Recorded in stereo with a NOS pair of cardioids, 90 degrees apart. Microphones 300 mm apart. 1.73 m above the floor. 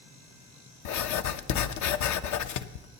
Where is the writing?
70° left, 0.8 m.